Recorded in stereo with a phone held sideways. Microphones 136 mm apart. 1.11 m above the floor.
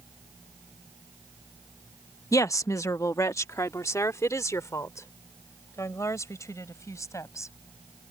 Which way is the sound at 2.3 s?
25° left (ahead or behind).